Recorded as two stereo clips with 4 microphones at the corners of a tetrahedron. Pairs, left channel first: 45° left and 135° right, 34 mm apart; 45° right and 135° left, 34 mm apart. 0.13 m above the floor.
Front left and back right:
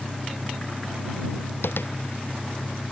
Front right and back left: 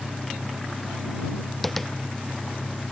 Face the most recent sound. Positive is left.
turn(degrees=40)